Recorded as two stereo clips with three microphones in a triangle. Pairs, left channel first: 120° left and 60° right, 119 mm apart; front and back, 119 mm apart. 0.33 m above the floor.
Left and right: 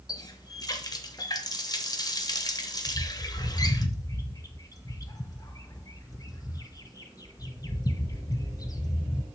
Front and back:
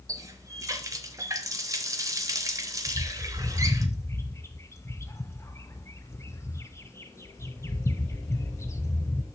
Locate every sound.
0.1 s a running tap: 145° left, 0.9 m
2.9 s a bird: 65° left, 0.7 m